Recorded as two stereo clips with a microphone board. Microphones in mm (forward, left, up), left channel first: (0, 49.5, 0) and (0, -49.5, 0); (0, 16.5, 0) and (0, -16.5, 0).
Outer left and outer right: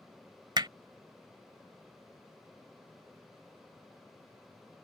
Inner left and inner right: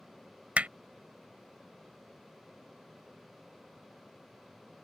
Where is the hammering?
45° right (ahead or behind).